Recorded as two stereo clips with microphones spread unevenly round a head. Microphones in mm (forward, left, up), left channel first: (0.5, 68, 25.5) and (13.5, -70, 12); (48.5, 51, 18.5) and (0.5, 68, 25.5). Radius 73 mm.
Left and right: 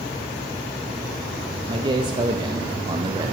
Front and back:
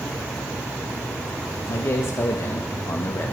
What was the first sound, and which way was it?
A man speaking, 35° right.